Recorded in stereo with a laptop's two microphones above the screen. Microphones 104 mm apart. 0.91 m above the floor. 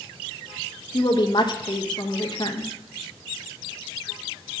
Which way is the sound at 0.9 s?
45° left (ahead or behind).